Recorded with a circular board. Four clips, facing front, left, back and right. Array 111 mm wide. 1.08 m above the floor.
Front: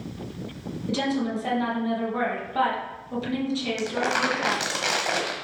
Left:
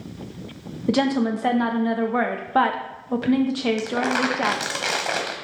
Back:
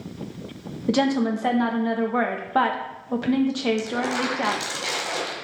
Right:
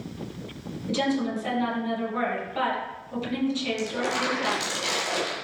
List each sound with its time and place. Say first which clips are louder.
0.9 s a woman speaking: left 5 dB, back 5 dB; 125° left, 1.2 m
3.8 s crumpling: left 5 dB, even; 55° left, 1.4 m